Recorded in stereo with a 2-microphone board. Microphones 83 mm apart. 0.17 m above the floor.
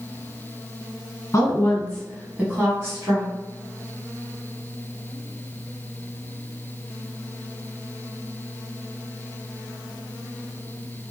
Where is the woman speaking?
35° left (ahead or behind), 1.5 m; by 3.3 s 45° right (ahead or behind), 1.8 m.